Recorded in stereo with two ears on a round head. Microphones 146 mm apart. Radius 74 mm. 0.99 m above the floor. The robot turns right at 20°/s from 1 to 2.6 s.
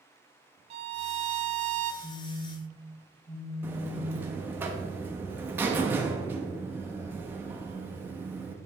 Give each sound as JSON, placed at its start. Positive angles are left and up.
{"t": 0.7, "sound": "a violin", "side_deg": -40, "distance_m": 0.6}
{"t": 2.0, "sound": "a phone buzzing", "side_deg": 30, "distance_m": 2.0}
{"t": 3.6, "sound": "a buzzer", "side_deg": -10, "distance_m": 0.9}